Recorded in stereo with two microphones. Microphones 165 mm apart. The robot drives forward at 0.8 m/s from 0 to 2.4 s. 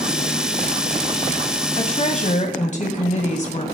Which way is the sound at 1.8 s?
40° left (ahead or behind).